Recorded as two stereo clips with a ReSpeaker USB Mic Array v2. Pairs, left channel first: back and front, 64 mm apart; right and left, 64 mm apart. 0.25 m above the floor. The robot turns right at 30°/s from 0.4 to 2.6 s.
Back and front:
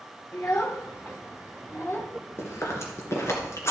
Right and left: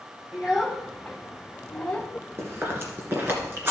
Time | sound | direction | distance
0.3 | a child speaking | 145° left | 1.0 m
2.4 | chewing | 135° left | 2 m